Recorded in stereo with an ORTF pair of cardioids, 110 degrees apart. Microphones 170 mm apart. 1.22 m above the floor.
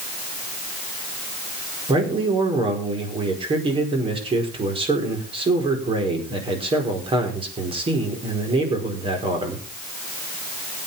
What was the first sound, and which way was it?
A man speaking, 30° right.